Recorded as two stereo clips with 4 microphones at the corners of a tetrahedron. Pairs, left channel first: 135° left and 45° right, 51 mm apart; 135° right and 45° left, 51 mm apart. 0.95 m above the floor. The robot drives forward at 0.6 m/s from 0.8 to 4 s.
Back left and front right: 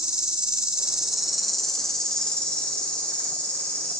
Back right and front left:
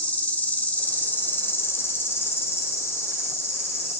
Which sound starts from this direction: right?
An insect, at 0.0 s.